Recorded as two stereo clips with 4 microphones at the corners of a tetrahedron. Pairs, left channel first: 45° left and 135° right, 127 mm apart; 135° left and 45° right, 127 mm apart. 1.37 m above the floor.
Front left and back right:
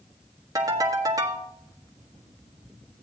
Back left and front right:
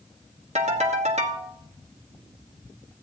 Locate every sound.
0.6 s a ringtone: 75° right, 1.3 m